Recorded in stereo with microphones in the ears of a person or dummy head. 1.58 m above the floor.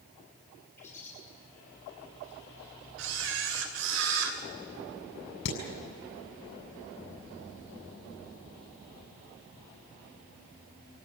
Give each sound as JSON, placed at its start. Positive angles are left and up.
{"t": 0.8, "sound": "a bird", "side_deg": 10, "distance_m": 8.5}
{"t": 3.0, "sound": "a camera shutter", "side_deg": -70, "distance_m": 3.0}
{"t": 5.5, "sound": "hammering", "side_deg": 70, "distance_m": 7.5}